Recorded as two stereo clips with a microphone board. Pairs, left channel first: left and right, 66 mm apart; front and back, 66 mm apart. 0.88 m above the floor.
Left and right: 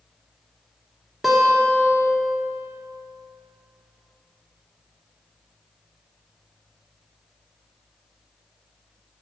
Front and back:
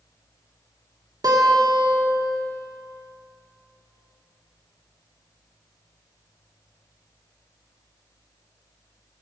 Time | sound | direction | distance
1.2 | a guitar | 175° right | 2 m